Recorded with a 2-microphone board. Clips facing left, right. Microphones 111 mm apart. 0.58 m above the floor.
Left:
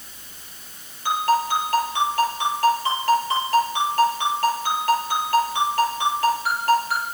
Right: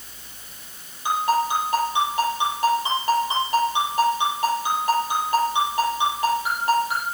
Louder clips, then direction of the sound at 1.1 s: Left 1 dB; 15° right (ahead or behind).